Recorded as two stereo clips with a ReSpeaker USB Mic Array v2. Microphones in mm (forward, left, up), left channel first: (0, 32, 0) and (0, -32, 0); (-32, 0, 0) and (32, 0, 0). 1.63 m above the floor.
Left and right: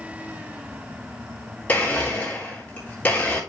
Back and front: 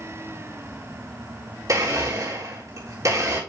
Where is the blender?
25° left, 3.5 m.